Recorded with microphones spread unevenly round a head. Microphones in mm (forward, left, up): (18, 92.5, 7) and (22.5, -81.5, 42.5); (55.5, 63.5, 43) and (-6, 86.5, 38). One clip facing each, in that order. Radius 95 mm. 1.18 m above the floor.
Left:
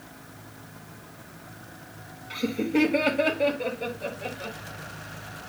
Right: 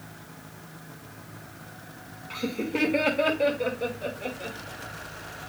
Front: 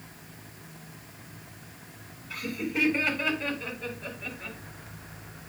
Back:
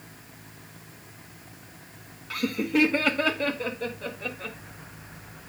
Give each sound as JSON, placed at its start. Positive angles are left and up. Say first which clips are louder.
{"t": 2.3, "sound": "laughter", "louder": "left 4 dB, back 6 dB", "azimuth_deg": 170, "distance_m": 1.8}